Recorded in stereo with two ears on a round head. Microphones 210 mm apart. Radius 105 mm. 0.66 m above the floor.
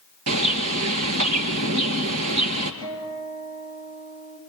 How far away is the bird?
About 2.5 m.